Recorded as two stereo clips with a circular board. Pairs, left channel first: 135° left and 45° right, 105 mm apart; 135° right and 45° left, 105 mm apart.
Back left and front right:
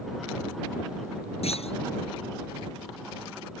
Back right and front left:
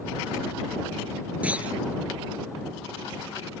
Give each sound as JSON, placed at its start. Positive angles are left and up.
{"t": 1.4, "sound": "a clunk", "azimuth_deg": 120}